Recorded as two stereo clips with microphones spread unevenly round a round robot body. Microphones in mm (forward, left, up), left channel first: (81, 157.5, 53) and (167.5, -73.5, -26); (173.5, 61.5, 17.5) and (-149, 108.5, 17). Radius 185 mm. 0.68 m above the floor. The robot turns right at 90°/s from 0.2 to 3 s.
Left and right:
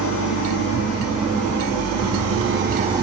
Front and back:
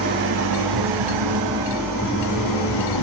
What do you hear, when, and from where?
0.0 s an engine running: 115° left, 3 m; by 3.0 s 5° left, 3 m